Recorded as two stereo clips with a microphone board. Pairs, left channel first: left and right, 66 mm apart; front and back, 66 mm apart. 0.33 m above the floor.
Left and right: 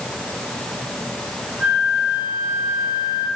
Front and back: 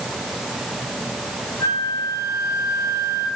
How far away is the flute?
About 3.5 m.